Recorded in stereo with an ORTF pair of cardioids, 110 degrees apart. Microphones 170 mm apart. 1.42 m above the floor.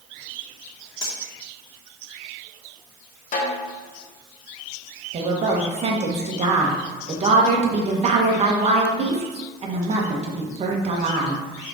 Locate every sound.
1.0 s cutlery clinking: 20° left, 2 m
3.3 s a snare drum: 55° left, 1.5 m
5.1 s a woman speaking: 40° right, 1.5 m